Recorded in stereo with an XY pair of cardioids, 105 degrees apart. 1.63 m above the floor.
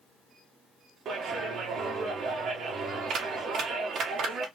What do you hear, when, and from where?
1.1 s a clap: 65° right, 1.2 m